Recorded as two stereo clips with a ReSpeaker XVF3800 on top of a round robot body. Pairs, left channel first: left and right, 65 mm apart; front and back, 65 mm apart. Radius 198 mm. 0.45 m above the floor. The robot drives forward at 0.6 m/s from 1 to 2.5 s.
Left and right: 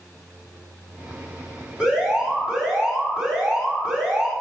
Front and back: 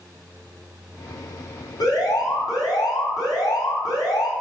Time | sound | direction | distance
1.8 | an alarm | 10° right | 4.5 m